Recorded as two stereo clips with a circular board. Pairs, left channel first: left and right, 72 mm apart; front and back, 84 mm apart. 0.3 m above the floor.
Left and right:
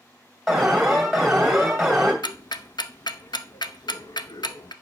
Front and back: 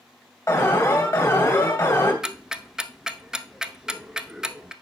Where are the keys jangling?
No keys jangling in this recording.